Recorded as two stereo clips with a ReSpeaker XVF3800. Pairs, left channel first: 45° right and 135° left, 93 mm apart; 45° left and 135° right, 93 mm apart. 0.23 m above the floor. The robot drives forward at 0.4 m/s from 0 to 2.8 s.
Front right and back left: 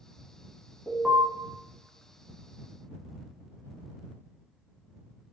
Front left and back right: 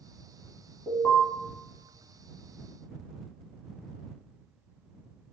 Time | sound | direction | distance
0.9 | an alarm | 55° left | 1.2 m